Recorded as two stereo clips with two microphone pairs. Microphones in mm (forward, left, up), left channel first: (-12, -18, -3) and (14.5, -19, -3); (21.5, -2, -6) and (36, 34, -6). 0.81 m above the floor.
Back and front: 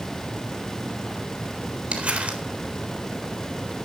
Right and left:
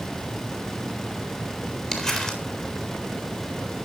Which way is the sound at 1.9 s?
40° right.